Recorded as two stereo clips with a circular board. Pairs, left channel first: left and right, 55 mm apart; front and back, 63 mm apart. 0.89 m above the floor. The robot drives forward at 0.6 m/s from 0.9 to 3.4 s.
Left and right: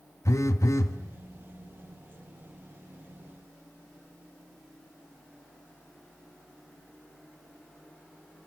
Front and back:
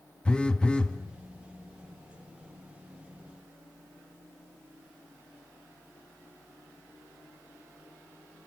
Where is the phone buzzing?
75° left, 0.9 m; by 1.0 s 80° left, 0.9 m.